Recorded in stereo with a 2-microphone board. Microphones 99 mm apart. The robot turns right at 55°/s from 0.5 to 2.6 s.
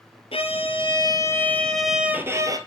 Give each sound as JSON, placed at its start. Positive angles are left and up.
{"t": 0.3, "sound": "a violin", "azimuth_deg": 105, "distance_m": 1.0}